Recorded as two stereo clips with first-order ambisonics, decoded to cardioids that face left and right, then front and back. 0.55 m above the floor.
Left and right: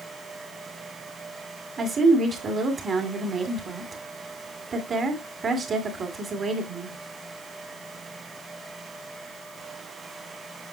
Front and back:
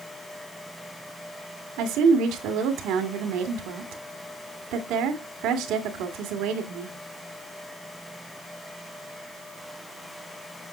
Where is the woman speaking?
160° right, 1.9 m.